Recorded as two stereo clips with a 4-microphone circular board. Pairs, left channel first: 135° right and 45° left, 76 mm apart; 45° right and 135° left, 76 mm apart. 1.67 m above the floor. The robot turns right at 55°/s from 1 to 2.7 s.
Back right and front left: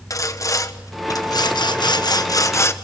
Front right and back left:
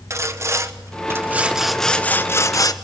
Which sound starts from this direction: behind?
Sawing, at 0.1 s.